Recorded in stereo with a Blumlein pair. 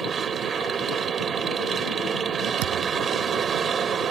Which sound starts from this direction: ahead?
A machine running, at 0.0 s.